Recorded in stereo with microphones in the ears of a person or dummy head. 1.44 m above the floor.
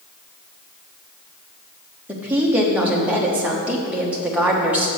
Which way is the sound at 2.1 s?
10° right (ahead or behind).